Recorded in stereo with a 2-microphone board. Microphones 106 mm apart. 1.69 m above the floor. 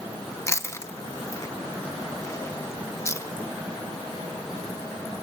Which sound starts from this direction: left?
Chewing, at 0.5 s.